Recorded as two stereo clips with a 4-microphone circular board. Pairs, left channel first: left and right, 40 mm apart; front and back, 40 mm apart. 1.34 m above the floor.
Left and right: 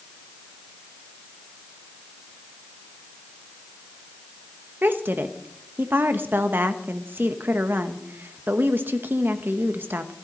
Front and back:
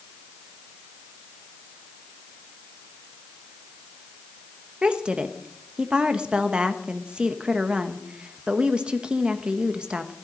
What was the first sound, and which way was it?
A woman speaking, 115° right.